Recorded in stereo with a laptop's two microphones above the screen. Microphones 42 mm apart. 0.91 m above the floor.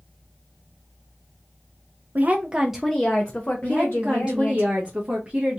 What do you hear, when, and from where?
2.1 s a woman speaking: 45° right (ahead or behind), 0.6 m; by 4.6 s 55° left (ahead or behind), 1.5 m
3.6 s a woman speaking: 25° right (ahead or behind), 0.9 m